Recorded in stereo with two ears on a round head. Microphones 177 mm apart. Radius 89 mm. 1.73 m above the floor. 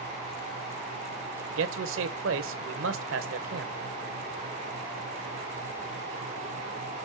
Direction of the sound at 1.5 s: 75° right (ahead or behind).